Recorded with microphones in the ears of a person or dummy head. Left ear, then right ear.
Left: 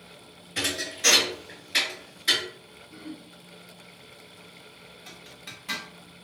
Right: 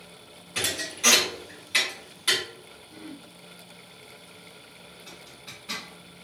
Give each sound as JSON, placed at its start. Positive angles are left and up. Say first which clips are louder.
{"t": 0.6, "sound": "a thud", "louder": "even", "side_deg": -25, "distance_m": 1.4}
{"t": 2.9, "sound": "throat clearing", "louder": "left 2 dB", "side_deg": -10, "distance_m": 0.6}
{"t": 5.1, "sound": "a zipper", "louder": "left 2 dB", "side_deg": 20, "distance_m": 1.0}